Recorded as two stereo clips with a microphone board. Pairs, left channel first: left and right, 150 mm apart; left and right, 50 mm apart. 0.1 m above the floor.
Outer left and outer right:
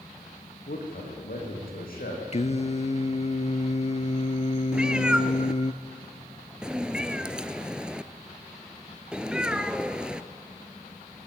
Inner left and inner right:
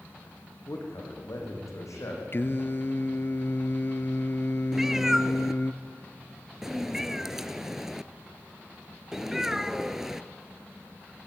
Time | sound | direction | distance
0.7 | a man speaking | 75° left (ahead or behind) | 6 m
2.3 | singing | 50° left (ahead or behind) | 0.6 m
4.7 | a cat meowing | 5° right (ahead or behind) | 0.6 m